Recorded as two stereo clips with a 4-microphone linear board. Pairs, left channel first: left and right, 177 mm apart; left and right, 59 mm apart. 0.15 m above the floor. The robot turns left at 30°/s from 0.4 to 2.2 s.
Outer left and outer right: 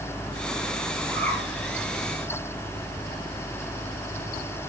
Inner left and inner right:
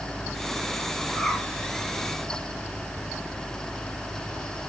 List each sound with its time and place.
1.1 s a bird: 10° left (ahead or behind), 2 m; by 1.4 s centre (ahead or behind), 2 m